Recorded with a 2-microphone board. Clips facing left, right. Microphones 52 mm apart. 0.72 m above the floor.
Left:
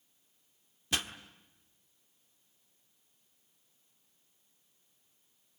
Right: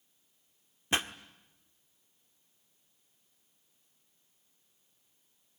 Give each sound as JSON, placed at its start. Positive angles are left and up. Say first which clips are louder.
{"t": 0.9, "sound": "a pop", "louder": "right 4 dB", "side_deg": -30, "distance_m": 1.1}